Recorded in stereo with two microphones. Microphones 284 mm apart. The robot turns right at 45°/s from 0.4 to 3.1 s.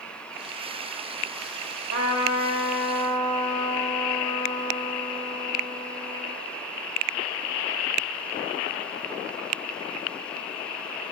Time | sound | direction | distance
1.9 | a trumpet | 105° left | 3 m